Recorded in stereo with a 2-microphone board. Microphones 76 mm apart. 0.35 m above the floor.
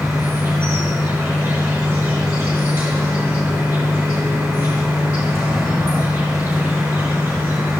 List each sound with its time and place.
0.0 s an insect: 35° right (ahead or behind), 5.5 m